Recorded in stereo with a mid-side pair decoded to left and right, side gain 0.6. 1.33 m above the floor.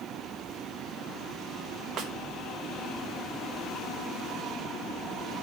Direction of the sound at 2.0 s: 50° right.